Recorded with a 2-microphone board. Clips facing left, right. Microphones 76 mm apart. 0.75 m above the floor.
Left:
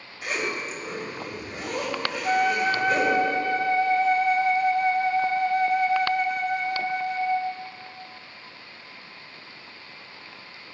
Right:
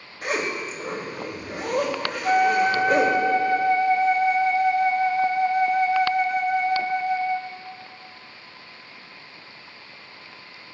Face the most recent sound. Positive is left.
turn(degrees=-20)  # may be behind; listen again after turning